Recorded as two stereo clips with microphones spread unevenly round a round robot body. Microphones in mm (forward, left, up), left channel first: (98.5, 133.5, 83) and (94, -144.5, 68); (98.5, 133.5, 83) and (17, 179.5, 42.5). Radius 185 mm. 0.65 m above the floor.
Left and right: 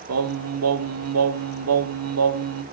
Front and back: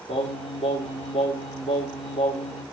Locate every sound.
0.1 s singing: 75° right, 1.6 m